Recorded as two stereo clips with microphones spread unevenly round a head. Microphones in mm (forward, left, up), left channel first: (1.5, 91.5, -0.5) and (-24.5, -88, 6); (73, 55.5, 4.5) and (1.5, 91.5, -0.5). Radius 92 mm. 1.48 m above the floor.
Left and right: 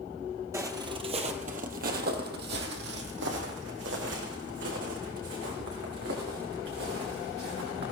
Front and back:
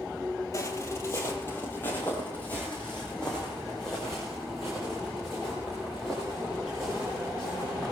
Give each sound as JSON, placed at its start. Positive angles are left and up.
{"t": 0.5, "sound": "footsteps", "azimuth_deg": -30, "distance_m": 1.8}